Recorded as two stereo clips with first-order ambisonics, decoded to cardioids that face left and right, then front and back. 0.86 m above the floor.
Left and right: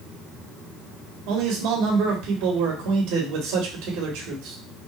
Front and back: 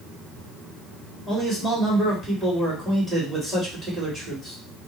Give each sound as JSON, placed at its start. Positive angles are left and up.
{"t": 1.3, "sound": "a man speaking", "azimuth_deg": -95, "distance_m": 2.5}